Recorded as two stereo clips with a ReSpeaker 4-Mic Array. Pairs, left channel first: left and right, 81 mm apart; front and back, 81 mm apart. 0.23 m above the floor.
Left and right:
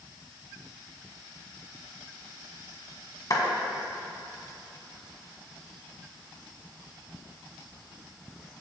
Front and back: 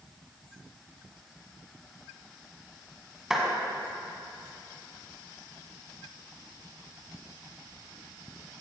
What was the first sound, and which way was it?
A clap, 100° left.